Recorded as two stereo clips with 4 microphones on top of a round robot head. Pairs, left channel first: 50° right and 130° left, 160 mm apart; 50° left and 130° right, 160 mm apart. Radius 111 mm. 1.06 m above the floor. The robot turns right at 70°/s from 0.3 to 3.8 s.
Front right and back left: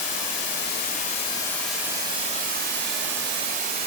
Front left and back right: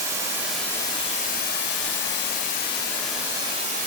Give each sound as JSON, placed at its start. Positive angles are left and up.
{"t": 0.0, "sound": "running water", "azimuth_deg": -55, "distance_m": 2.0}